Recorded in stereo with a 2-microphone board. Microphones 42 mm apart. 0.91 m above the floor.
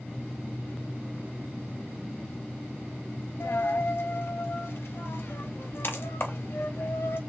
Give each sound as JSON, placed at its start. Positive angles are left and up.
{"t": 3.4, "sound": "a dropped coin", "side_deg": 55, "distance_m": 0.5}